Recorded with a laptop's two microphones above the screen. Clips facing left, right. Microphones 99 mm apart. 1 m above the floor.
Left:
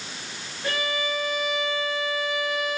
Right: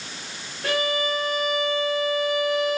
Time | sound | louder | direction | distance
0.6 | a violin | right 4 dB | 55° right (ahead or behind) | 4 m